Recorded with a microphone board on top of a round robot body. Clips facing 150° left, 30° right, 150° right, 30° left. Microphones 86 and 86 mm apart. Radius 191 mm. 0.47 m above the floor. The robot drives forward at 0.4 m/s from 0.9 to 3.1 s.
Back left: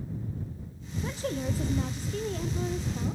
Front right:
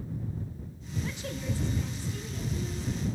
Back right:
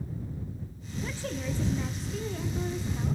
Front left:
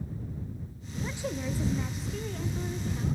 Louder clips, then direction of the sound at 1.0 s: Back left 5 dB, front left 1 dB; 100° left.